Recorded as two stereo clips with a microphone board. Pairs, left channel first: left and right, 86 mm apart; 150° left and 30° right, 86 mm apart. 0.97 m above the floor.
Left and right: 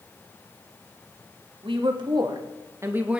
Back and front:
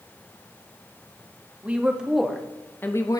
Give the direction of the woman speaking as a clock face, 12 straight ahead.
3 o'clock.